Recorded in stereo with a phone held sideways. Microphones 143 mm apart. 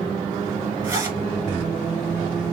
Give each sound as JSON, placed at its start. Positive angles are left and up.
{"t": 0.8, "sound": "a zipper", "side_deg": -25, "distance_m": 3.0}